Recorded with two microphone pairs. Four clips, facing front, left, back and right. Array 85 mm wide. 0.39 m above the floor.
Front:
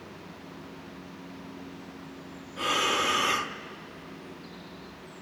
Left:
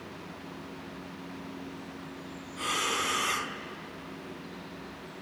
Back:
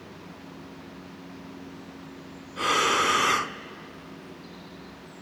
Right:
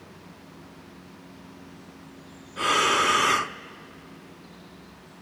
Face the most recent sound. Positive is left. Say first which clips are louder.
# right 10 dB, back 4 dB
turn(degrees=-120)